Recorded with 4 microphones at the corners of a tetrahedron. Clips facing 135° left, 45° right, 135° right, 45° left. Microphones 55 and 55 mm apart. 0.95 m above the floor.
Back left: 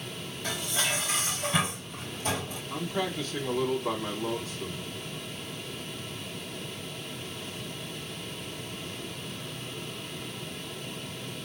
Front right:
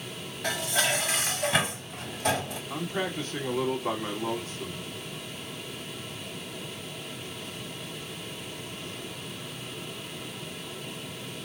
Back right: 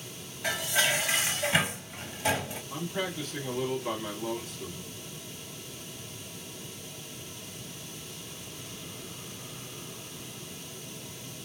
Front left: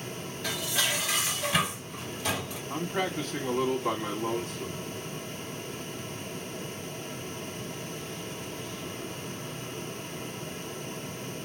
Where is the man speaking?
5° left, 2.5 m.